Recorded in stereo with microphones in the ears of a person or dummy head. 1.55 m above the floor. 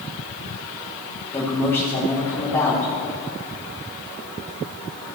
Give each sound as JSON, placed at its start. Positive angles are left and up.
{"t": 1.3, "sound": "a man speaking", "side_deg": 15, "distance_m": 1.8}